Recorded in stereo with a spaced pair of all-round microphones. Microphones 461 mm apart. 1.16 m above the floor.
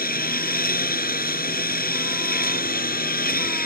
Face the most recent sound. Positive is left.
turn(degrees=20)  # may be behind; listen again after turning